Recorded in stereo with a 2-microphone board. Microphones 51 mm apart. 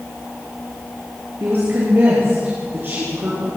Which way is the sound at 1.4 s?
45° right (ahead or behind).